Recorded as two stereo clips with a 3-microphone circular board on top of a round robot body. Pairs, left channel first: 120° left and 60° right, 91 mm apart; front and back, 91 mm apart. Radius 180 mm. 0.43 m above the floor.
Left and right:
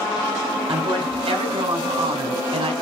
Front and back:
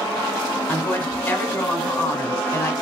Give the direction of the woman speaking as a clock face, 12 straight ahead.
2 o'clock.